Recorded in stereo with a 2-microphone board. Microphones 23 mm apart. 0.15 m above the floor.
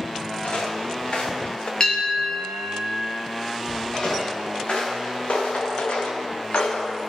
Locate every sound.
0.4 s footsteps: 75° left (ahead or behind), 3 m; by 1.7 s 50° left (ahead or behind), 2.5 m
1.8 s a bell: 35° left (ahead or behind), 2.5 m
3.9 s footsteps: 50° left (ahead or behind), 4 m; by 7.0 s 75° left (ahead or behind), 1.7 m